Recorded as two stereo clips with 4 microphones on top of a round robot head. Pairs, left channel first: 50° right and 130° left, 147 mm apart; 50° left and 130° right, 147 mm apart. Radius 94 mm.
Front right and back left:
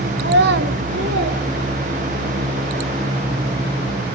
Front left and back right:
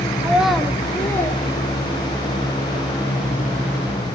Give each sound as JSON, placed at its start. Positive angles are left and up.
{"t": 0.2, "sound": "a child speaking", "azimuth_deg": 155, "distance_m": 0.8}